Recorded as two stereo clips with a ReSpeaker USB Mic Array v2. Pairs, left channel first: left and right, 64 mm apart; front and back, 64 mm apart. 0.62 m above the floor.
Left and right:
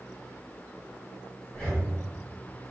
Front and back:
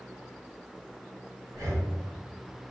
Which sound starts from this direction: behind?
Breathing, at 1.5 s.